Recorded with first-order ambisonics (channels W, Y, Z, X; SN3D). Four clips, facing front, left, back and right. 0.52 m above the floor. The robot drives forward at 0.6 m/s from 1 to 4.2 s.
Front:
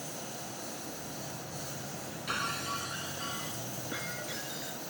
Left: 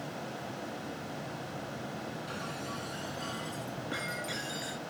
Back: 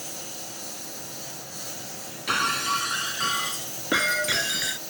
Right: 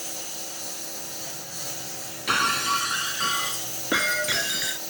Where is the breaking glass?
120° right; by 4.8 s 140° right.